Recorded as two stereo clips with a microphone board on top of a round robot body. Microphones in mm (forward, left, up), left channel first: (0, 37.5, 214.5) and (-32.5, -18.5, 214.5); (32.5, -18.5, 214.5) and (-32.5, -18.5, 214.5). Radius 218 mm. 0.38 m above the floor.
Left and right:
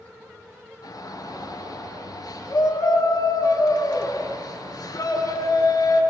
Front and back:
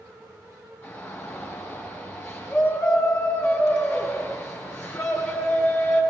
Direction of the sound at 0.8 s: 45° left.